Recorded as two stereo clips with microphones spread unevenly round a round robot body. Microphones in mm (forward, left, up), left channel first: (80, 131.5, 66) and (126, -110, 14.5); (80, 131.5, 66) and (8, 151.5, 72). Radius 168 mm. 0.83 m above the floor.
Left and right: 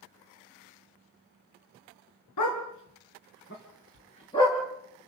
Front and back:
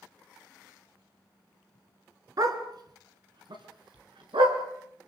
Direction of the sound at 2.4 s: 130° left.